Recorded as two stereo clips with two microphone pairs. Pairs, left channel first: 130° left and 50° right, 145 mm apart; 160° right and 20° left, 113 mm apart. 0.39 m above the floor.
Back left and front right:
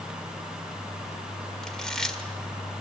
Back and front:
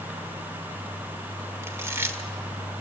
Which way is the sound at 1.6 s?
50° left.